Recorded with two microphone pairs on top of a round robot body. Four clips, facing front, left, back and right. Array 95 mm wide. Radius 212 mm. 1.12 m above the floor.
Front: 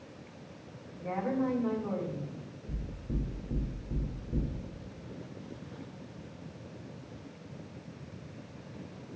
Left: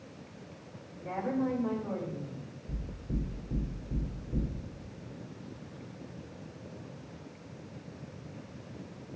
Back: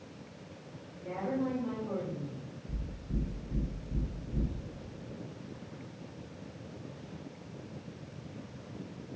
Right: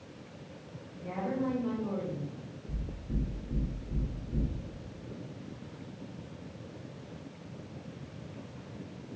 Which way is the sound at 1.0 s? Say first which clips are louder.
Left 1 dB, front 2 dB; 10° left.